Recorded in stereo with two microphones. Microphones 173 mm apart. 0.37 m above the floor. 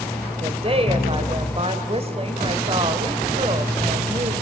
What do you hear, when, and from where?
0.4 s a woman speaking: 35° right (ahead or behind), 1.7 m